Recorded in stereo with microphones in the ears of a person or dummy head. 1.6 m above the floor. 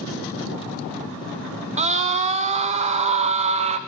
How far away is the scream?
About 2 m.